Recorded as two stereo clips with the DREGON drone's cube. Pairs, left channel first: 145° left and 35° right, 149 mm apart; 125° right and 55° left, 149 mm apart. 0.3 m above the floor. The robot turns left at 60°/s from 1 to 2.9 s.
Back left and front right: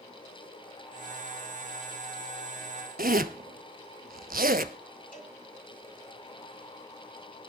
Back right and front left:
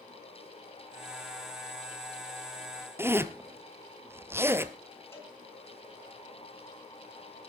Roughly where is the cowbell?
Behind.